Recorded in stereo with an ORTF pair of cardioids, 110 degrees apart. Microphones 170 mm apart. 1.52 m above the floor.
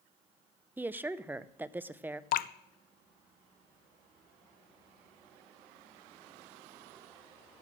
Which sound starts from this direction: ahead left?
Dripping, at 2.3 s.